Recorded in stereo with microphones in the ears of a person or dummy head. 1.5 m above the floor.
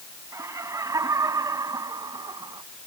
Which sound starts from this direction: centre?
Laughter, at 0.3 s.